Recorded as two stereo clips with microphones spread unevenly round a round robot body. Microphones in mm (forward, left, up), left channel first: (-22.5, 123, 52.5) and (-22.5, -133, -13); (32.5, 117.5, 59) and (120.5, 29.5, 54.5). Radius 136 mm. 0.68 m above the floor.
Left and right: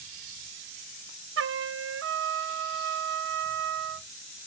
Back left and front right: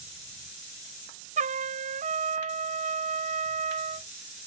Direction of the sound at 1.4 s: 55° right.